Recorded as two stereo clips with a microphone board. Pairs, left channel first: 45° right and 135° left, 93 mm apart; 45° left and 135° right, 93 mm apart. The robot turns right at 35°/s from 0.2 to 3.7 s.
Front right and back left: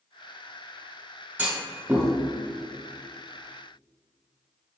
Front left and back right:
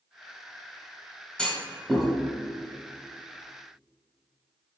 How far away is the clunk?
About 1.1 m.